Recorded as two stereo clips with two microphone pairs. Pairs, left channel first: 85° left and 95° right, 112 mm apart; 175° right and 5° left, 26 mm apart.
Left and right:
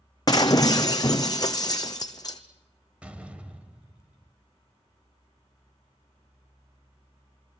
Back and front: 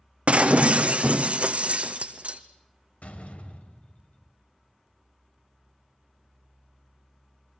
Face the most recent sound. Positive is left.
turn(degrees=-170)